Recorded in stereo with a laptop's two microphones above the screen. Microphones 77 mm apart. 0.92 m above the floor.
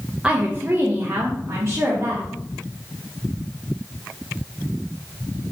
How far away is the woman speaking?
About 0.6 m.